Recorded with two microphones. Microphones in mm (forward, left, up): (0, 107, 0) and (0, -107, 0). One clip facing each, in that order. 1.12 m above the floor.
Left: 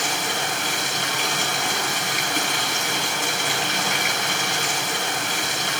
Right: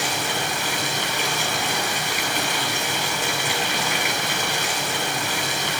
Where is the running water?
45° left (ahead or behind), 6.5 m.